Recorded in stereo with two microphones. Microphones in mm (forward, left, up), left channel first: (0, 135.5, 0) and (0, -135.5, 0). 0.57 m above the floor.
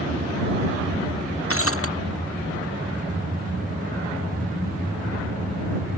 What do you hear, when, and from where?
1.5 s breaking glass: 55° left (ahead or behind)